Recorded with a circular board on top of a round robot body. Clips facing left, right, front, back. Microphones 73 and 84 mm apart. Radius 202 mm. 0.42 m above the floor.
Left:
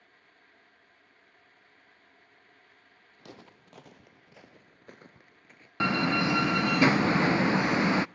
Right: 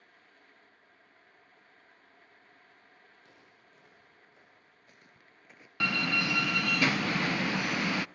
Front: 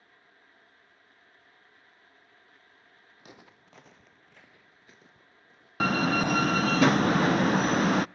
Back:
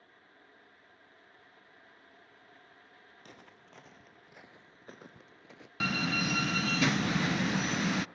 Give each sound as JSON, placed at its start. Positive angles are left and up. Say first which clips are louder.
{"t": 3.2, "sound": "footsteps", "louder": "left 9 dB, front 3 dB", "azimuth_deg": 80, "distance_m": 1.6}
{"t": 5.8, "sound": "a door slam", "louder": "left 5 dB, front 7 dB", "azimuth_deg": 30, "distance_m": 0.5}